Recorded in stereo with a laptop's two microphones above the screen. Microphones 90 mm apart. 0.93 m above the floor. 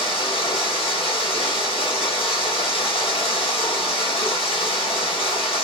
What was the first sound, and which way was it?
Running water, 85° left.